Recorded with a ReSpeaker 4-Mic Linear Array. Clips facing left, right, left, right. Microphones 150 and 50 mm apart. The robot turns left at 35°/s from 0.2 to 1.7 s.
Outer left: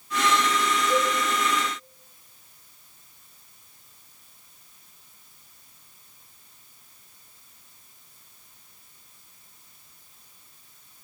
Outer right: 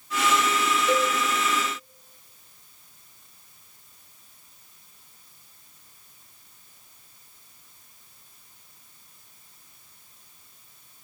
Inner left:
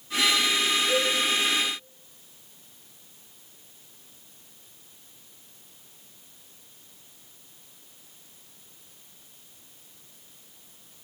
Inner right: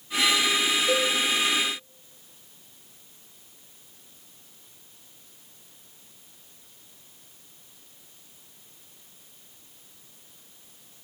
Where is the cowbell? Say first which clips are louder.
Outer right 1 dB, inner right 2 dB; 70° right (ahead or behind), 6.5 m; by 1.1 s 80° right, 6.5 m.